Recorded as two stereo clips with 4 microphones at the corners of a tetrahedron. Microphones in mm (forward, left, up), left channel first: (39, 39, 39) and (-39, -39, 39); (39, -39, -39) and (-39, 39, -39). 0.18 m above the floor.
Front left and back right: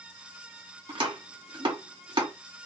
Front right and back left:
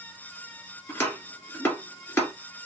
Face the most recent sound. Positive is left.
turn(degrees=-110)